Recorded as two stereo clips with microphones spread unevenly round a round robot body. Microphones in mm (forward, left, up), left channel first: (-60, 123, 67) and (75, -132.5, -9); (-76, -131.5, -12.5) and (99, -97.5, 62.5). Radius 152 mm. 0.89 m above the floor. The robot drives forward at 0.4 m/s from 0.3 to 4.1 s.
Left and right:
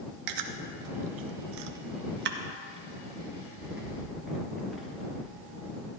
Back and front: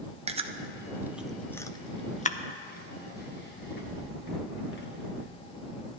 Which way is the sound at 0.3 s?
50° right.